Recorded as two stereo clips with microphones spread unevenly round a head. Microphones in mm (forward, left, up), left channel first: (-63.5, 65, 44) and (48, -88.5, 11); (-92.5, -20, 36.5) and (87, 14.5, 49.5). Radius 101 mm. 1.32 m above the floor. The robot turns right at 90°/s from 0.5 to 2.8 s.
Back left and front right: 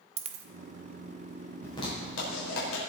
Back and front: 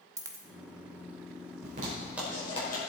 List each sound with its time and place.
0.2 s a dropped coin: 25° right, 0.7 m
1.6 s a zipper: 45° left, 5 m; by 2.8 s 150° left, 5 m